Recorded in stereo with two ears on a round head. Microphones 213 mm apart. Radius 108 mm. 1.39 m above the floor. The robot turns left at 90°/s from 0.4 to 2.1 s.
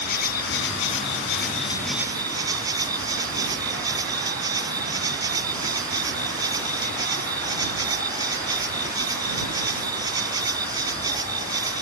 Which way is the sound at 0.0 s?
135° left.